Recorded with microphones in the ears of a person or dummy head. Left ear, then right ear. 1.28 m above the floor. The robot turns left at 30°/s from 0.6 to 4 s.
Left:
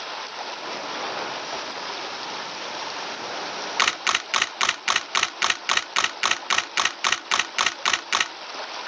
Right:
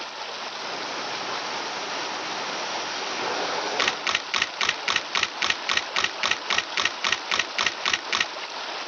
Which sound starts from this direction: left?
A camera shutter, at 3.8 s.